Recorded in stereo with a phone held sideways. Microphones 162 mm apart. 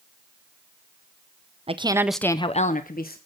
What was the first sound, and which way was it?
A woman speaking, 40° right (ahead or behind).